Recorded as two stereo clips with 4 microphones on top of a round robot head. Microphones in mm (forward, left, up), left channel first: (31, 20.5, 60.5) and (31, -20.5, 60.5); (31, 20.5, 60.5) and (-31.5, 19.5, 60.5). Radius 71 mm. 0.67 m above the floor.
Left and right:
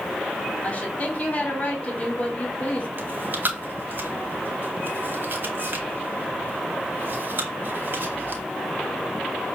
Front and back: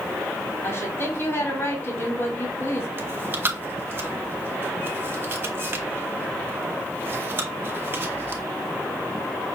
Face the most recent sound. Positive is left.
turn(degrees=-125)